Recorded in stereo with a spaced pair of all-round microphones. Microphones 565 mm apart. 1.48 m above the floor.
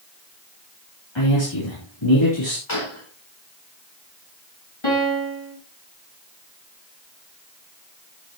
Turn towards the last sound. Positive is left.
turn(degrees=55)  # may be behind; listen again after turning